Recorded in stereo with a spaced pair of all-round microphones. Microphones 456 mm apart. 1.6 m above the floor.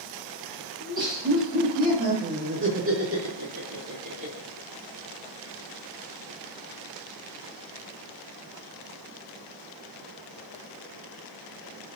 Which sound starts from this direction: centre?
Laughter, at 0.8 s.